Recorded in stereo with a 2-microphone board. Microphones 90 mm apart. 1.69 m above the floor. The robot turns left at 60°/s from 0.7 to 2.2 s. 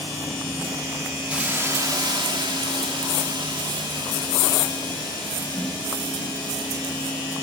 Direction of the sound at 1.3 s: 10° right.